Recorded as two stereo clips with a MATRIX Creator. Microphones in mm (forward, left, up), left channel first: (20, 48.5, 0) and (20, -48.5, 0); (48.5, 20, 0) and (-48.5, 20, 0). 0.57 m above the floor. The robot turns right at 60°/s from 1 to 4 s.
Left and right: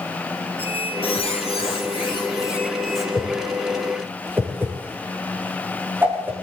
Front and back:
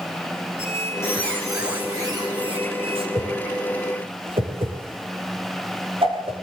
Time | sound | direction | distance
0.6 | a squeak | 60° left | 5 m
3.1 | a whoosh | 150° left | 8 m